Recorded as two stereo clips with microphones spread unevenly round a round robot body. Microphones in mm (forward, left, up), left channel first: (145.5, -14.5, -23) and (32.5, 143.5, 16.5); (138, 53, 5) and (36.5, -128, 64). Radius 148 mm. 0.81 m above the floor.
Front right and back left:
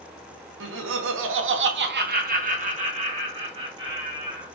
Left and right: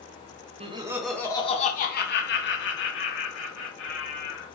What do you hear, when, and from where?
0.6 s laughter: 170° left, 1.1 m; by 4.5 s 55° left, 3 m